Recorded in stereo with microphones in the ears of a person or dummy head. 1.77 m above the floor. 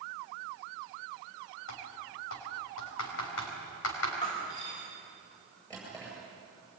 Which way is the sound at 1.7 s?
75° left (ahead or behind).